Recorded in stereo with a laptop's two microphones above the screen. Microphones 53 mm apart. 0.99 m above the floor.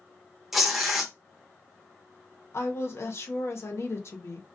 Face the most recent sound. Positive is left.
turn(degrees=55)  # may be behind; listen again after turning